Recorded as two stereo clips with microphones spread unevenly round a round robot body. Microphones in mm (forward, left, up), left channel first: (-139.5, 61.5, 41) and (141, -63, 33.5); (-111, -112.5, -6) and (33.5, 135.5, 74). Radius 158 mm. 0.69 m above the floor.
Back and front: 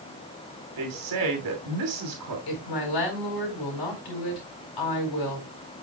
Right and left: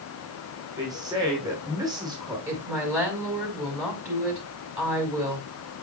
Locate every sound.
0.8 s a woman speaking: 25° right, 3 m
2.5 s a woman speaking: 145° left, 5 m